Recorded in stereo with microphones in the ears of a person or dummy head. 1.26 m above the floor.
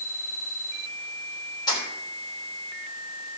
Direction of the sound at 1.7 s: 25° left (ahead or behind).